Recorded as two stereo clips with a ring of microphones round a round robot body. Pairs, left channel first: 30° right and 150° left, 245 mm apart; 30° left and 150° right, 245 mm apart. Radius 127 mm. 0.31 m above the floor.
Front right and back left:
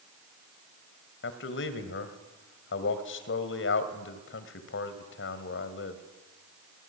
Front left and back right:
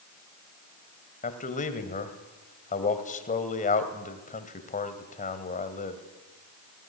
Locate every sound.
1.2 s a man speaking: 20° right, 2.5 m